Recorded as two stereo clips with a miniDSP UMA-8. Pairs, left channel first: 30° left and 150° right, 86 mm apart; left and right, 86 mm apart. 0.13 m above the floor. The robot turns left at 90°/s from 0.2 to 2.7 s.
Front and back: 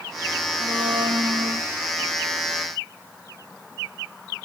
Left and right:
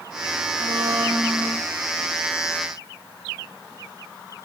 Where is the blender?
110° right, 1.6 m; by 1.6 s 155° left, 1.6 m.